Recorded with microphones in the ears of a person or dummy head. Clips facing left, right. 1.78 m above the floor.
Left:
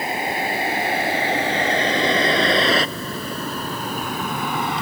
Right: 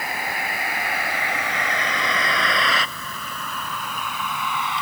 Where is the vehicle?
25° left (ahead or behind); by 4.8 s 40° left (ahead or behind).